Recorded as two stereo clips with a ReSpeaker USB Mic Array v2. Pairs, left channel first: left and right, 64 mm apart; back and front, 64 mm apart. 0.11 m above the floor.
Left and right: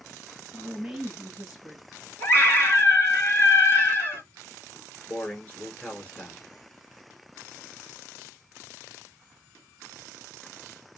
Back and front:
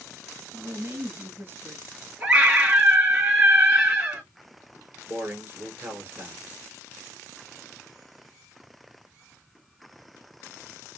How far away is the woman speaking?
About 1.5 m.